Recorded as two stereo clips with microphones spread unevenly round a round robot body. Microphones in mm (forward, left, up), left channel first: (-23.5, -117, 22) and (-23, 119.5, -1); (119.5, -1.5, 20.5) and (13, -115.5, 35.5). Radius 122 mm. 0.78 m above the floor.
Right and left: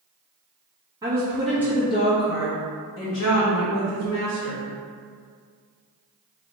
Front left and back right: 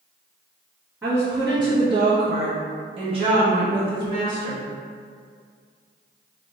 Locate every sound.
1.0 s a woman speaking: 150° left, 1.2 m; by 4.6 s 70° right, 2.5 m